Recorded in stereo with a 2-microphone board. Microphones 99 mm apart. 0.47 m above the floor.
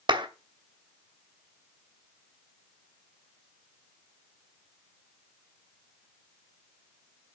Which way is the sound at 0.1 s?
55° right (ahead or behind).